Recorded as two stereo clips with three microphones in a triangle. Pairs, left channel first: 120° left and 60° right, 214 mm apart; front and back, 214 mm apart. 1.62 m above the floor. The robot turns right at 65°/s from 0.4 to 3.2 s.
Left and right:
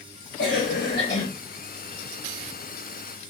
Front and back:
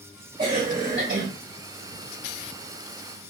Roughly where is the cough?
Behind left.